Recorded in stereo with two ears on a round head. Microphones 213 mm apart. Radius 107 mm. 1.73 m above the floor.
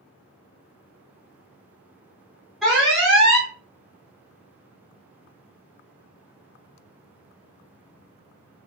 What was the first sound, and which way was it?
An alarm, centre (ahead or behind).